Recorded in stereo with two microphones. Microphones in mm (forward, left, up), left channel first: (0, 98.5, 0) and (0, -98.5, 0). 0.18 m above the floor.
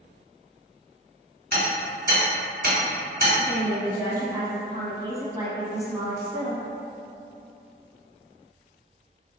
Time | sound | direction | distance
1.5 | hammering | 45° right (ahead or behind) | 1.8 m
3.4 | a woman speaking | 15° right (ahead or behind) | 1.1 m